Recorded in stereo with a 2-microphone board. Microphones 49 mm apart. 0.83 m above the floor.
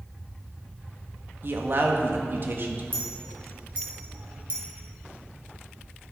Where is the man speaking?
50° right (ahead or behind), 1.5 m.